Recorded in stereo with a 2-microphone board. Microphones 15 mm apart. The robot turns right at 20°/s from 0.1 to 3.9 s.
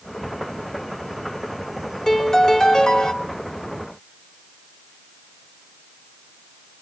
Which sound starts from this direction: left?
A piano, at 2.1 s.